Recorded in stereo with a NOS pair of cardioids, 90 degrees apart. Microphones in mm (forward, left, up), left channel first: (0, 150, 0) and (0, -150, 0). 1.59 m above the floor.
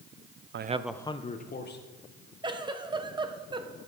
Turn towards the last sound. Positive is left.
turn(degrees=-15)